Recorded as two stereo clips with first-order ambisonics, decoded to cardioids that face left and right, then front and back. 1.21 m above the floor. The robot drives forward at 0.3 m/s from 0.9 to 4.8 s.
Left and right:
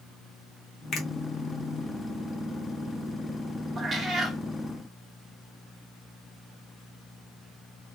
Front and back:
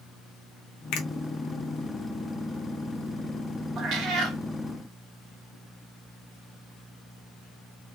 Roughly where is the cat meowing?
Behind right.